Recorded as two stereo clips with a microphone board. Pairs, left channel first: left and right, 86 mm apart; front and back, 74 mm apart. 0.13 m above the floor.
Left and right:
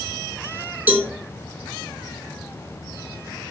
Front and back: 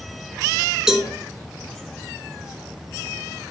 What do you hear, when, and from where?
0.9 s a cowbell: 110° right, 1.1 m